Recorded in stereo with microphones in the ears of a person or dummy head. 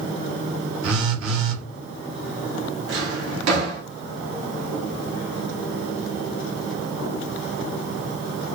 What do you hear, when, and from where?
0.8 s a phone buzzing: 75° right (ahead or behind), 1.5 m
2.9 s a drawer: 75° right (ahead or behind), 1.5 m